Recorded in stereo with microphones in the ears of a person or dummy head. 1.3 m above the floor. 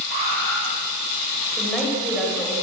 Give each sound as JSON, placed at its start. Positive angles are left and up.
{"t": 0.1, "sound": "an alarm", "side_deg": -55, "distance_m": 9.5}
{"t": 1.6, "sound": "a woman speaking", "side_deg": 0, "distance_m": 5.5}